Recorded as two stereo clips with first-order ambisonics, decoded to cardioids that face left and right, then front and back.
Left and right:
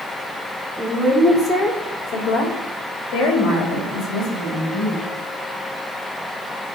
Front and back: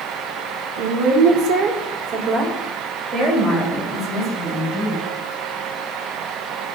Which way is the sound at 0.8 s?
175° right.